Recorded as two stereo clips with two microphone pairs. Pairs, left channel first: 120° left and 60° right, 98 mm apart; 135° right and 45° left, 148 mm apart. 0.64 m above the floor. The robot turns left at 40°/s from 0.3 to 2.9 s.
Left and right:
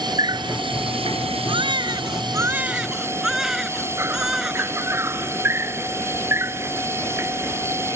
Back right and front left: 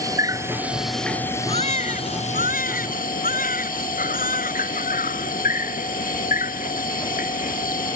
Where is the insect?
20° right; by 8.0 s 125° right.